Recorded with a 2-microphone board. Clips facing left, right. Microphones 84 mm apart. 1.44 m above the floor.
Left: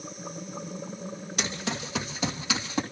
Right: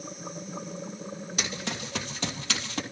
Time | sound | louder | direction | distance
1.4 | running footsteps | left 3 dB | centre (ahead or behind) | 3.5 m